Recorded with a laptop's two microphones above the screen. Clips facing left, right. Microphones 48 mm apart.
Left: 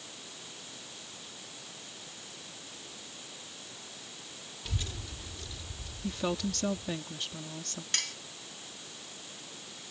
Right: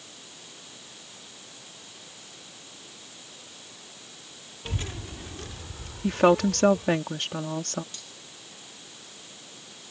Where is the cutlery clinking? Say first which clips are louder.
Left 10 dB; 80° left.